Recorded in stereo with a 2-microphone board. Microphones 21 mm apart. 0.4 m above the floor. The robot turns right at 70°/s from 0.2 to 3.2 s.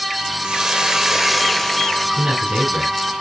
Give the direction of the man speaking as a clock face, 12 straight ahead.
4 o'clock.